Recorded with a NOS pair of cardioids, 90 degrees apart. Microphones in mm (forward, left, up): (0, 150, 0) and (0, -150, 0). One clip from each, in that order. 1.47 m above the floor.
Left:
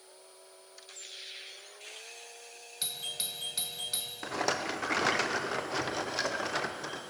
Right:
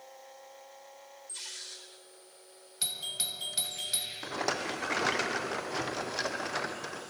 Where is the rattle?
5° left, 0.8 m.